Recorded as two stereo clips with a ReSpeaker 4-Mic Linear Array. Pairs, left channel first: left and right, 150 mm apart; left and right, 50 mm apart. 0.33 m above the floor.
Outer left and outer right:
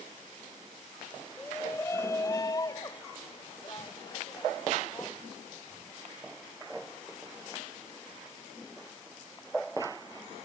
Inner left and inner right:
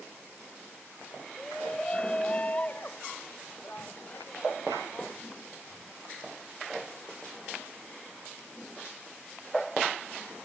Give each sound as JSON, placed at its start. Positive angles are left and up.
{"t": 1.4, "sound": "a shout", "side_deg": 15}